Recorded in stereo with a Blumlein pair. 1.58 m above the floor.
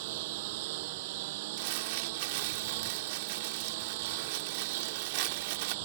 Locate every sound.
0.0 s a lawn mower: 50° right
1.6 s crumpling: 45° right